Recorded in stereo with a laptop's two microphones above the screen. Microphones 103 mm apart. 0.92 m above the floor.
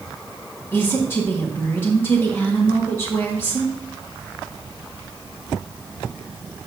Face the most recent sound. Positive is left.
turn(degrees=25)  # may be behind; listen again after turning